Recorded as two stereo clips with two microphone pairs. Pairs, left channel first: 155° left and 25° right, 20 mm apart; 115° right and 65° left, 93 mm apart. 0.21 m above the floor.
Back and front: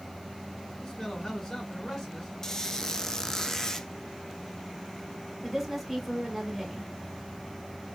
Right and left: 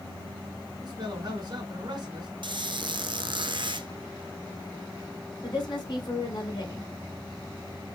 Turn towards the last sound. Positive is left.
turn(degrees=-105)